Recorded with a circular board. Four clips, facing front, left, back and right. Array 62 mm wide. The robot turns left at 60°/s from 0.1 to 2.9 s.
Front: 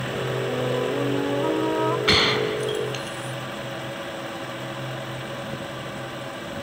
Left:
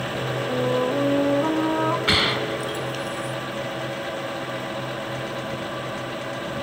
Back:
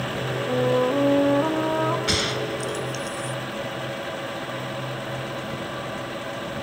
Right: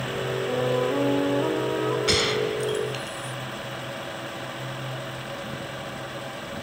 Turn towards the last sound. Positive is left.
turn(degrees=0)